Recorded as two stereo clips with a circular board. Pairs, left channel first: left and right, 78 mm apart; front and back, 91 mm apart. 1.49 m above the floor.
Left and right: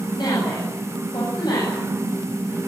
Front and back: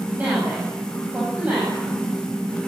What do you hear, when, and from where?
0.1 s a woman speaking: 110° left, 9.5 m